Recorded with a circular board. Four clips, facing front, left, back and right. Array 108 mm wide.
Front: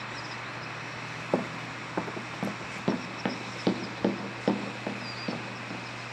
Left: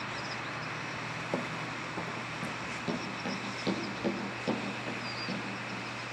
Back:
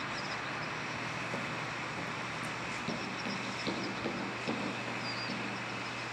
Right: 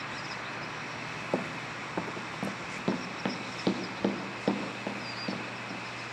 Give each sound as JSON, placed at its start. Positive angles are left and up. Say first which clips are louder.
{"t": 1.3, "sound": "running footsteps", "louder": "right 3 dB, front 7 dB", "azimuth_deg": -15, "distance_m": 0.6}